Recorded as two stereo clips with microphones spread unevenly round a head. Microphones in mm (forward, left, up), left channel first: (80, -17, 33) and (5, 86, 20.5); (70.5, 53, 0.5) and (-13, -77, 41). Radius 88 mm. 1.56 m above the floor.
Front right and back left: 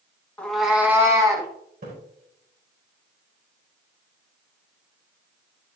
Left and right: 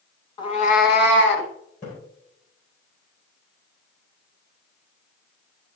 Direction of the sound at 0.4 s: 5° right.